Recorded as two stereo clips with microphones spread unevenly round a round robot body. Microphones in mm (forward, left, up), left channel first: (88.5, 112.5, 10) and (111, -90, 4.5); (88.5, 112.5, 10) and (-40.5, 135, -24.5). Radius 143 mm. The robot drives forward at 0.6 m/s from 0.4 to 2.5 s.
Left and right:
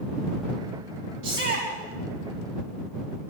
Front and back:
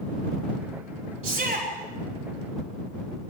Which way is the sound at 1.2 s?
130° right.